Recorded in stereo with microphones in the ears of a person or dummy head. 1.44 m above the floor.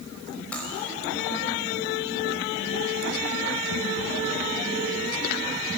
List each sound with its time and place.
0.5 s cutlery clinking: 5° left (ahead or behind), 4.5 m